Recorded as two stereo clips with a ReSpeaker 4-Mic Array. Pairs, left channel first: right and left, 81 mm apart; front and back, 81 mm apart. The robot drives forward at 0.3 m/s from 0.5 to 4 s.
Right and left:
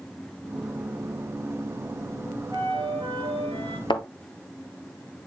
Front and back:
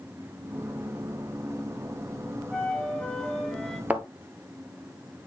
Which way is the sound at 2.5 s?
80° left.